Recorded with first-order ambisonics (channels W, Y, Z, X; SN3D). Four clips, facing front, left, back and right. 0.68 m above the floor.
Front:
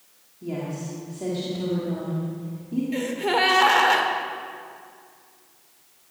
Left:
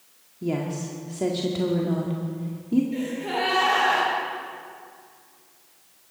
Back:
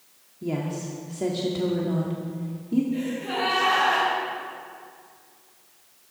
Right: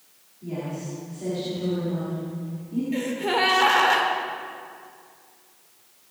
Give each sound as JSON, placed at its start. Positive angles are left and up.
{"t": 0.4, "sound": "a woman speaking", "azimuth_deg": 115, "distance_m": 1.6}
{"t": 2.9, "sound": "a gasp", "azimuth_deg": -30, "distance_m": 2.0}